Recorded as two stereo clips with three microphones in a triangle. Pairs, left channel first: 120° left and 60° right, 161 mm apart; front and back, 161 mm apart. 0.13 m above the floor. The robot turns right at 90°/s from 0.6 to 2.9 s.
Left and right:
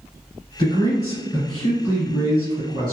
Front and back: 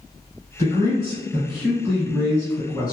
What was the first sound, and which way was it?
A man speaking, 125° left.